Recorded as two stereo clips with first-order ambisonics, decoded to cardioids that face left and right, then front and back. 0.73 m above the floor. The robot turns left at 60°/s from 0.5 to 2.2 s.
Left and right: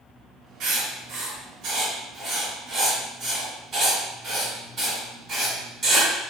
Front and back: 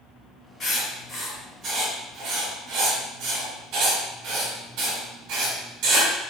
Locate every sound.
0.6 s writing: 65° right, 1.8 m; by 6.1 s 160° right, 1.8 m